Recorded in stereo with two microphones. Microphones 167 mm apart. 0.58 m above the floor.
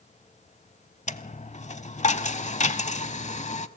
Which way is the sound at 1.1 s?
50° left (ahead or behind).